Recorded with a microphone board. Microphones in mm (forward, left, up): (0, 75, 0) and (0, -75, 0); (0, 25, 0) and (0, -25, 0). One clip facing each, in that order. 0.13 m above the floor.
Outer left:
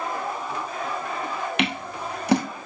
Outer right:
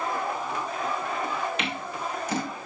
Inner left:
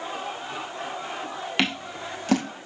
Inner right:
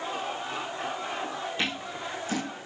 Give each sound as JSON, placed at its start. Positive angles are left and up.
{"t": 1.6, "sound": "scissors", "side_deg": 70, "distance_m": 1.6}